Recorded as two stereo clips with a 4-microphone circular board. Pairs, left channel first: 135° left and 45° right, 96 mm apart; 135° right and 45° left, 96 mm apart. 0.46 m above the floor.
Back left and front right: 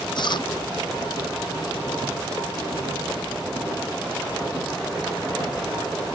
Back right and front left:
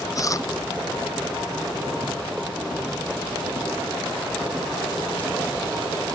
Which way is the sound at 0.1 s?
170° left.